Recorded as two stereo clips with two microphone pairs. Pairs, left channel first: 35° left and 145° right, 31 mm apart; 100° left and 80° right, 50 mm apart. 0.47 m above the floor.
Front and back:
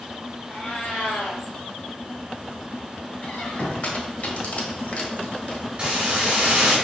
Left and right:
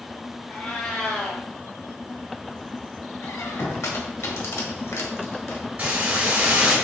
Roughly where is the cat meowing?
Ahead left.